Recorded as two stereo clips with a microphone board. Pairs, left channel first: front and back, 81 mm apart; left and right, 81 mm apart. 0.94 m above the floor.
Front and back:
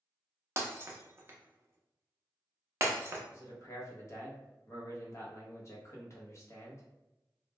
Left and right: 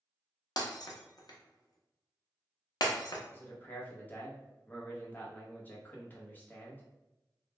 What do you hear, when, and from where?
0.6 s breaking glass: 125° left, 0.5 m
3.3 s a man speaking: 30° left, 0.7 m